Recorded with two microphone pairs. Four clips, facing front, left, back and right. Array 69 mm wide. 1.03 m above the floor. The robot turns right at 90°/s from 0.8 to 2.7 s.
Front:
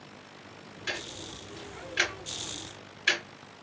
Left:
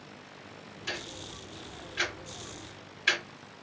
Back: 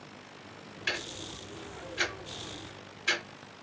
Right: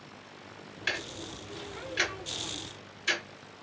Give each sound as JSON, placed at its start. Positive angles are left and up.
{"t": 0.9, "sound": "ticking", "azimuth_deg": -120, "distance_m": 1.8}